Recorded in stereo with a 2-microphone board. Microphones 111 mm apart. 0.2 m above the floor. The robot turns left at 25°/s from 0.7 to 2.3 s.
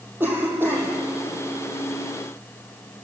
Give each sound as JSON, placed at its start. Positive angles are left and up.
{"t": 0.2, "sound": "a cough", "side_deg": -20, "distance_m": 9.0}